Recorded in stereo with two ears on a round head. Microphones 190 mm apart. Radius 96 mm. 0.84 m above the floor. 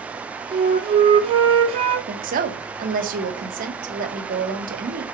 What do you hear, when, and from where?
0.5 s a flute: 25° right (ahead or behind), 1.3 m
2.1 s a woman speaking: 40° right (ahead or behind), 1.5 m